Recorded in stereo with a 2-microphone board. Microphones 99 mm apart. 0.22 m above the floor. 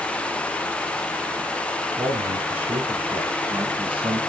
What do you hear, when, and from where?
2.0 s a man speaking: 70° right (ahead or behind), 3 m; by 4.2 s 50° right (ahead or behind), 2 m